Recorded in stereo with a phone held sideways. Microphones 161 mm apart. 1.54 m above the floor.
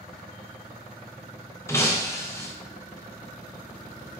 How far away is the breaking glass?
About 0.7 m.